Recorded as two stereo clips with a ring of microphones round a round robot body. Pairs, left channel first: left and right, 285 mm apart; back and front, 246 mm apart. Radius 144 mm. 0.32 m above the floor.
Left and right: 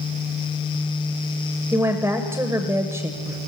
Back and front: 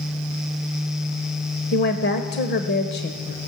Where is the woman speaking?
165° right, 1.2 m.